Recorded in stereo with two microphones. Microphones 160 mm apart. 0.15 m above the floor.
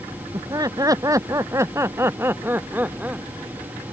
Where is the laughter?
25° right (ahead or behind); by 3.2 s 10° right (ahead or behind).